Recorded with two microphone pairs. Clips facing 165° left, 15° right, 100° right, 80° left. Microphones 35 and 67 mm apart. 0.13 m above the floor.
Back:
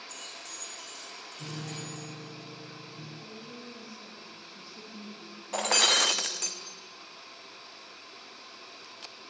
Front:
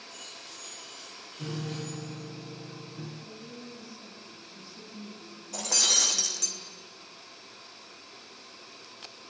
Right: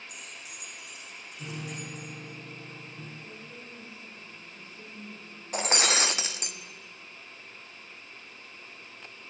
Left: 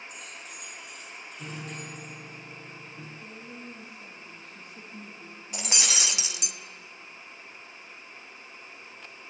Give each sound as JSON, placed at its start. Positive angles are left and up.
{"t": 0.1, "sound": "keys jangling", "azimuth_deg": 170, "distance_m": 5.5}
{"t": 1.4, "sound": "a piano", "azimuth_deg": 10, "distance_m": 1.6}
{"t": 3.2, "sound": "a woman speaking", "azimuth_deg": 100, "distance_m": 5.0}
{"t": 5.5, "sound": "breaking glass", "azimuth_deg": -155, "distance_m": 0.6}